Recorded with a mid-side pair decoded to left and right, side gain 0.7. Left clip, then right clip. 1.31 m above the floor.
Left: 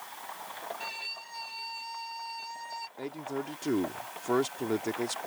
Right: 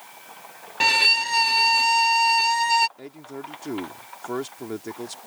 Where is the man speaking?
10° left.